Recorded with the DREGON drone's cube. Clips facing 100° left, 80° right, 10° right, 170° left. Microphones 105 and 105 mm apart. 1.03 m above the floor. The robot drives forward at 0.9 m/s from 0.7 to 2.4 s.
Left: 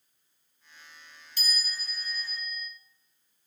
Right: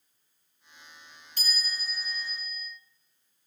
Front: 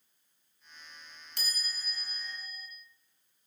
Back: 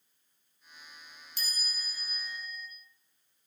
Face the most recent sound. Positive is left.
turn(degrees=-45)